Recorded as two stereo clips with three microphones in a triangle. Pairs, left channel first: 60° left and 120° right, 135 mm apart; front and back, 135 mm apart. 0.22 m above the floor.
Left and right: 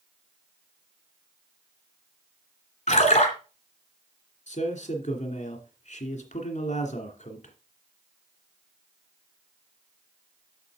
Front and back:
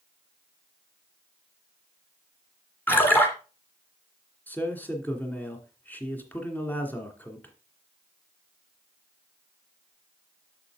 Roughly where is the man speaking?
Left.